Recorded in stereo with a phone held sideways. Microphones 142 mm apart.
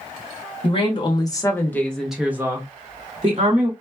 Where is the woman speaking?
40° left (ahead or behind), 1.1 m; by 3.7 s 50° right (ahead or behind), 1.1 m.